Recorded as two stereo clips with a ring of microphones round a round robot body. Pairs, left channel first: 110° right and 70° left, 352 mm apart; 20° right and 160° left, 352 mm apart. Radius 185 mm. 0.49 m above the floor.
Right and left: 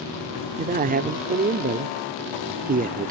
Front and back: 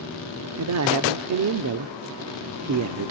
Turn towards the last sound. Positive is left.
turn(degrees=130)